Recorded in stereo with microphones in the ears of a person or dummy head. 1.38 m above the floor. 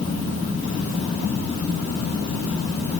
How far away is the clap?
No clap in this recording.